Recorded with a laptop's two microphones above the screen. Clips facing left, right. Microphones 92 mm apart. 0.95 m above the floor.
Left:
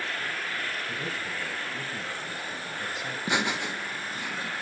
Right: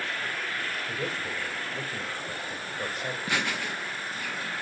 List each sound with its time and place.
0.9 s a man speaking: 60° right (ahead or behind), 2.5 m
3.3 s laughter: 20° left (ahead or behind), 0.6 m